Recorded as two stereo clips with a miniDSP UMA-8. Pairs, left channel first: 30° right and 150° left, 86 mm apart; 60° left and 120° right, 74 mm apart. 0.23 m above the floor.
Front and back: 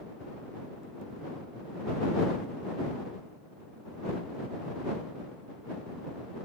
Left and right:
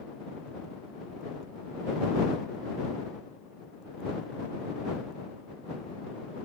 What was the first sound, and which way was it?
Only background noise.